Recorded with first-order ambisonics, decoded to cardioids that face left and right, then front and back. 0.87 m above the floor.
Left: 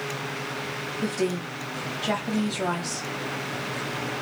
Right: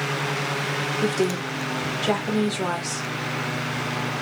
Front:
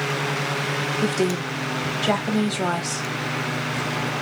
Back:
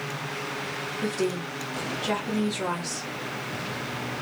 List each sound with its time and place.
1.0 s a woman speaking: 30° right, 1.0 m